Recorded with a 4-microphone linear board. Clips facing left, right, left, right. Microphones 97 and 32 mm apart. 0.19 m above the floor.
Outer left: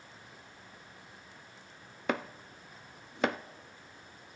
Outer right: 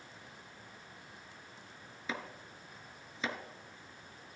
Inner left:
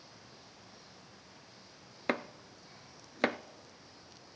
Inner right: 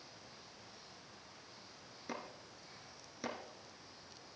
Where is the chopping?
65° left (ahead or behind), 0.7 m.